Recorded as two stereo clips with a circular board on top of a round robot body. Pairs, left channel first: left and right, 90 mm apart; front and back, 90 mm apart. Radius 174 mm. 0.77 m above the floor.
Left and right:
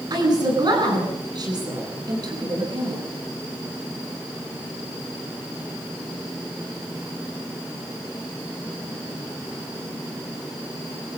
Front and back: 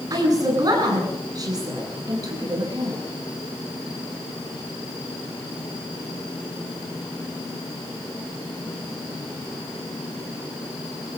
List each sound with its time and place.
0.1 s a woman speaking: 135° right, 9.5 m